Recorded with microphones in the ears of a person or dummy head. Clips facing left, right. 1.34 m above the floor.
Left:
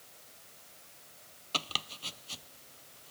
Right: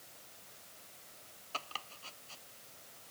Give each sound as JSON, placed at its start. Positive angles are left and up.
{"t": 1.5, "sound": "chopping", "side_deg": 50}